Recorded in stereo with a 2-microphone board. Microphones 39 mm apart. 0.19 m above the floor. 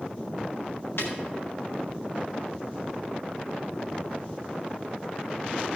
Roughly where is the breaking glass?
Left.